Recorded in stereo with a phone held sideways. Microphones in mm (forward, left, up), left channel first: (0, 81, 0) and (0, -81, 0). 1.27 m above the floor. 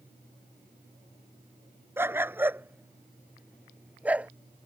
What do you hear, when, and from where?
2.0 s a dog barking: 15° right (ahead or behind); by 4.3 s 10° right (ahead or behind)